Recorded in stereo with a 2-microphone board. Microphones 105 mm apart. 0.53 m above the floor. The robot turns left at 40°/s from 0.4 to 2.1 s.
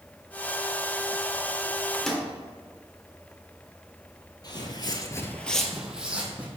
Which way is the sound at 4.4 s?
45° left (ahead or behind).